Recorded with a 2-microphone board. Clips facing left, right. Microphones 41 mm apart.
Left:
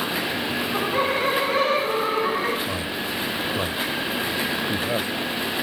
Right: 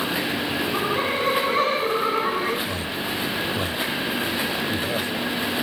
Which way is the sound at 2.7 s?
20° left (ahead or behind).